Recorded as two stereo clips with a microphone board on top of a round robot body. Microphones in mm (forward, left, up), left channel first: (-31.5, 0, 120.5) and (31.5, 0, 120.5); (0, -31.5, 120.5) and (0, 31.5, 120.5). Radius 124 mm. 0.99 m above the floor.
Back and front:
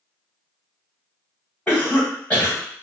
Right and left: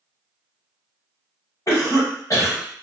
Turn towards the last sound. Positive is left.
turn(degrees=-115)